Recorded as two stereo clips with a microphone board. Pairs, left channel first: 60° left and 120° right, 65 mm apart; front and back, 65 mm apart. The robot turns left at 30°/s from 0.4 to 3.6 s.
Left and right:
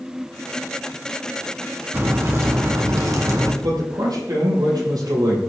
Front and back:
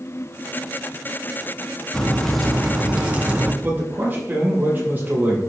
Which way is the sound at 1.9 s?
75° right.